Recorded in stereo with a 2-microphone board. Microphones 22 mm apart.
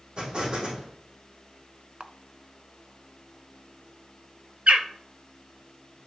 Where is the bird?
65° right (ahead or behind), 0.9 m.